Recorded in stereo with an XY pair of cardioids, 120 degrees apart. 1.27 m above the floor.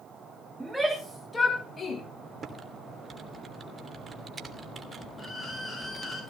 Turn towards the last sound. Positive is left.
turn(degrees=20)